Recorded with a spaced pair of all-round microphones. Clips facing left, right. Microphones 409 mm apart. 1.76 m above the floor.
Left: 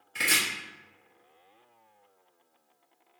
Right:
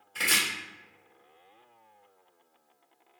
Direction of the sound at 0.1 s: 35° left (ahead or behind).